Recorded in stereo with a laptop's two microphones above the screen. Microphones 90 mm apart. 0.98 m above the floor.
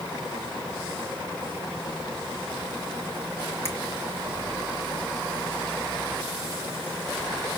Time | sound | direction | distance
3.6 | a finger snap | 30° left (ahead or behind) | 1.1 m